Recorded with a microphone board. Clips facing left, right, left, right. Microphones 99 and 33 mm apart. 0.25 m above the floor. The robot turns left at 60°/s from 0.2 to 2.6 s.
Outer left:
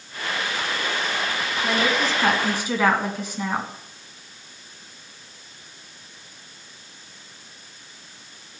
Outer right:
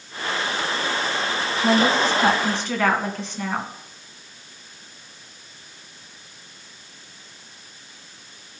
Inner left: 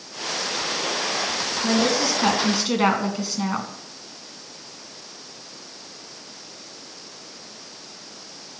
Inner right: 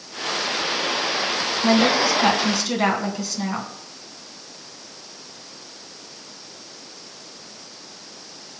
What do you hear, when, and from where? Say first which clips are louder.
1.6 s a woman speaking: outer right 5 dB, inner right 4 dB; 135° right, 2 m; by 3.7 s 165° left, 2 m